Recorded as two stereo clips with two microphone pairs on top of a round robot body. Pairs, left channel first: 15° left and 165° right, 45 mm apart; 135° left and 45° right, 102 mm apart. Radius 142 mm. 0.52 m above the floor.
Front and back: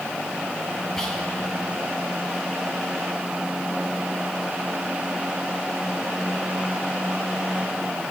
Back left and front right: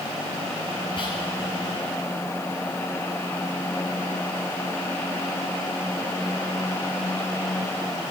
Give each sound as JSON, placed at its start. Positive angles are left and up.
{"t": 1.0, "sound": "whispering", "azimuth_deg": 95, "distance_m": 6.0}